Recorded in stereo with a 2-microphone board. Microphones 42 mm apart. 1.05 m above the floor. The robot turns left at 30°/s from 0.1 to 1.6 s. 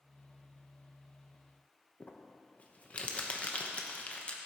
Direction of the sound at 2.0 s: 35° left (ahead or behind).